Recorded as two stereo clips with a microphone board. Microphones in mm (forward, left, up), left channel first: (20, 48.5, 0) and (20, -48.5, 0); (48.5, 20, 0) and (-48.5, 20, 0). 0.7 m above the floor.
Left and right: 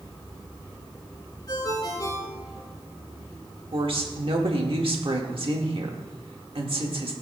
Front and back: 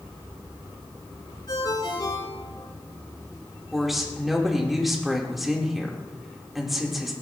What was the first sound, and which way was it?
A ringtone, 45° left.